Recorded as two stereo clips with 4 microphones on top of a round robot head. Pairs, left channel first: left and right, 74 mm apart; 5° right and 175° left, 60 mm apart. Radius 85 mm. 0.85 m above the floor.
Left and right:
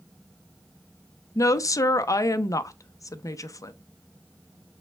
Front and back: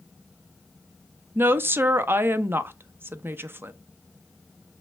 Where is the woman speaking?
125° left, 0.7 m.